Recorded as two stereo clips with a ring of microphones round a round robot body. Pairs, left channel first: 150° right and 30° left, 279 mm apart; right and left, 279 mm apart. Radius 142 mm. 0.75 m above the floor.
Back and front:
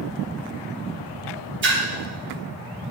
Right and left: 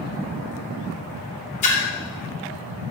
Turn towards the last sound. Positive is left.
turn(degrees=-25)